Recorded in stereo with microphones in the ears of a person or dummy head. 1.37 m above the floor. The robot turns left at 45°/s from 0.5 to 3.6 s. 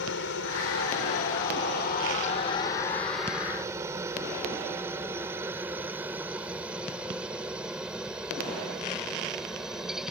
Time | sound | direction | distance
0.0 | a helicopter | 65° left (ahead or behind) | ?